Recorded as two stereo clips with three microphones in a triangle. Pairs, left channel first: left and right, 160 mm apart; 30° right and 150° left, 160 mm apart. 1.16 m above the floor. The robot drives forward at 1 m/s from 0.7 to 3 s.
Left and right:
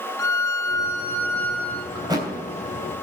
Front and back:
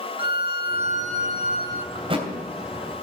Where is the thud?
150° right, 3 m; by 2.3 s 155° right, 3 m.